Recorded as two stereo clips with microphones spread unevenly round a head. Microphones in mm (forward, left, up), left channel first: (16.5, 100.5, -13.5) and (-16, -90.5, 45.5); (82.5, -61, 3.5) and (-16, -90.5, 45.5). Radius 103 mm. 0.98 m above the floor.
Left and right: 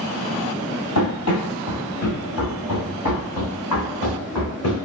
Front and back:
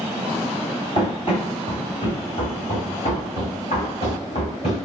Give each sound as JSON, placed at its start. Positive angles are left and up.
{"t": 0.9, "sound": "running footsteps", "azimuth_deg": 90, "distance_m": 1.4}